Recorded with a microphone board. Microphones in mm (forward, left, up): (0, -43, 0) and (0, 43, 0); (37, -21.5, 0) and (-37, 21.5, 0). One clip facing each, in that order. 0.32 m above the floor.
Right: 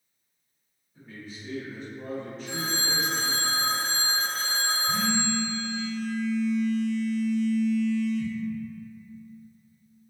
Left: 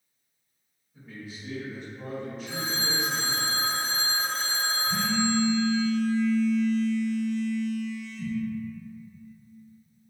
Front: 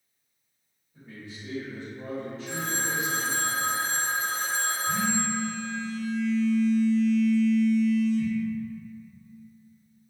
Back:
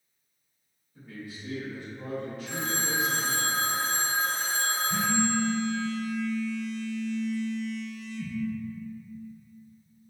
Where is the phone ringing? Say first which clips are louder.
Right 1 dB, front 1 dB; 50° left, 1.7 m.